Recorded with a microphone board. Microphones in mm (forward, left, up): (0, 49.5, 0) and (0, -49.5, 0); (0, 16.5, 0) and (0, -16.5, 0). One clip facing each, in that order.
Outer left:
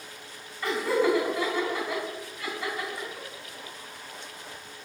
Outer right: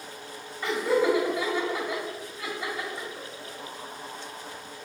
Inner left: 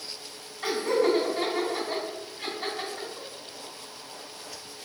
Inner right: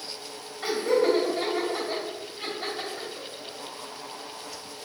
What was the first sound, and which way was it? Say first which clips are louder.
Laughter: outer right 1 dB, inner right 1 dB; 20° right (ahead or behind).